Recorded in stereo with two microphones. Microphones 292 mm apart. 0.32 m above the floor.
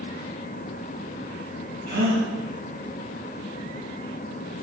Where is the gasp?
70° right (ahead or behind), 3.5 m.